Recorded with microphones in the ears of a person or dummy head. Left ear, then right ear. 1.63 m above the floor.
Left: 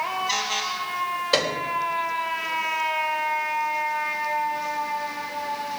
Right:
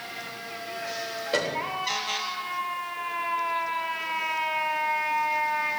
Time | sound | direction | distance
1.3 | a piano | 35° left (ahead or behind) | 3.5 m